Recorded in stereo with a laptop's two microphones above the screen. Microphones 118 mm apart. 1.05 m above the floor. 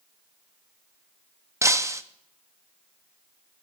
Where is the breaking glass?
25° right (ahead or behind), 0.5 m.